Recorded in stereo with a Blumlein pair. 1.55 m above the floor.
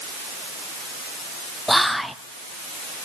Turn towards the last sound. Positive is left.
turn(degrees=0)